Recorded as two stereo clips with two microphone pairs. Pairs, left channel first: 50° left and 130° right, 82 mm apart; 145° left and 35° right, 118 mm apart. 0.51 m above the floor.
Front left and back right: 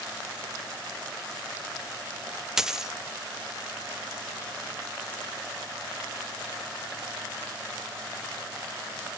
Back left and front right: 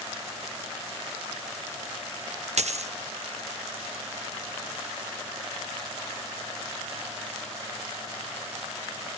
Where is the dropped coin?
45° right, 0.5 m.